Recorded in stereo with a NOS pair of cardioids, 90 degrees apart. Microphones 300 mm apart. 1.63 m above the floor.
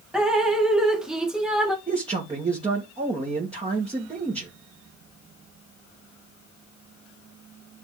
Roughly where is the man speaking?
Ahead.